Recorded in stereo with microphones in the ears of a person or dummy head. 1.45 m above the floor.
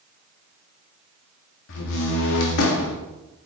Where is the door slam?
65° left (ahead or behind), 1.6 m.